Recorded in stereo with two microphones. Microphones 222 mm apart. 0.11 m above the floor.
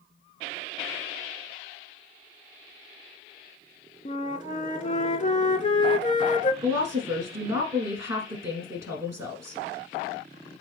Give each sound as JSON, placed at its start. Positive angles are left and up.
{"t": 4.0, "sound": "a flute", "side_deg": 30, "distance_m": 0.5}
{"t": 6.6, "sound": "a woman speaking", "side_deg": -10, "distance_m": 1.5}